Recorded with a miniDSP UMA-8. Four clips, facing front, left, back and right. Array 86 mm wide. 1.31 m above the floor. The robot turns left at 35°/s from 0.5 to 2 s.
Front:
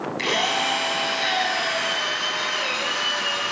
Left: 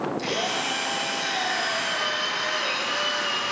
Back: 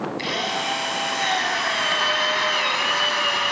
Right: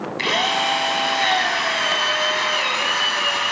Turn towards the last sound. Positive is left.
turn(degrees=-130)